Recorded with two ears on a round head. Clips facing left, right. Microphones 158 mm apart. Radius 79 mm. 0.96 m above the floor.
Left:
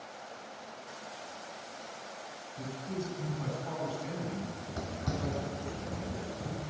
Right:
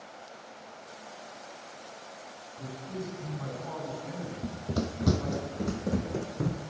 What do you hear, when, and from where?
2.6 s a man speaking: 30° left (ahead or behind), 10 m
4.4 s running footsteps: 50° right (ahead or behind), 2 m; by 6.6 s 80° right, 4 m